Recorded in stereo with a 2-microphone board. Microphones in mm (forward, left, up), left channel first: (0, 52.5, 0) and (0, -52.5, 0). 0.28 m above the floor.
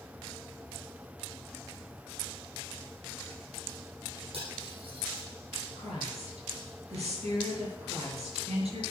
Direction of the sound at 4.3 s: 65° right (ahead or behind).